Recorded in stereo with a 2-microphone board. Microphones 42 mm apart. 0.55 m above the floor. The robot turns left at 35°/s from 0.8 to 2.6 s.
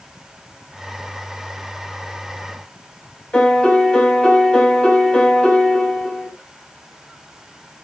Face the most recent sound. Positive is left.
turn(degrees=25)  # may be behind; listen again after turning